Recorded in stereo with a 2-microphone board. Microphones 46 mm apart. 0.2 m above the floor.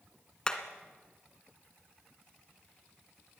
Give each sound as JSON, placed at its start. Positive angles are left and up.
{"t": 0.5, "sound": "hammering", "side_deg": 15, "distance_m": 1.6}